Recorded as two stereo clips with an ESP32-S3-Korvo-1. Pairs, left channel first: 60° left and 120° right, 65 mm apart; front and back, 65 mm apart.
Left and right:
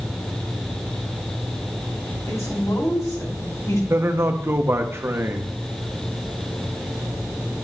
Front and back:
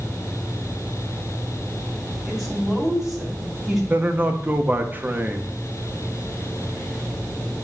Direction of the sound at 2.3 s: 95° left.